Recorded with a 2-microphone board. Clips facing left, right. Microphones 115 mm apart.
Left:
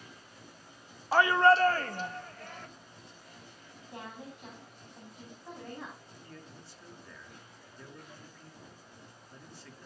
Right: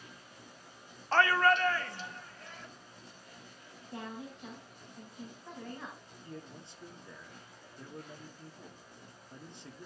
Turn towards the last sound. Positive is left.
turn(degrees=-20)  # may be behind; listen again after turning